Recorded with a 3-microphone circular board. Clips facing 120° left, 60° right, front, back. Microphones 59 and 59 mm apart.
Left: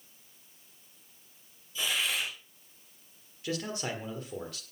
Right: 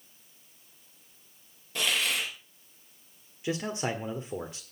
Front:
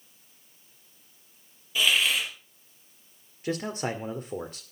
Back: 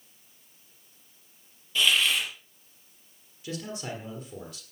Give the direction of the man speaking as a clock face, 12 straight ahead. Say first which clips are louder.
Right 3 dB, front 6 dB; 12 o'clock.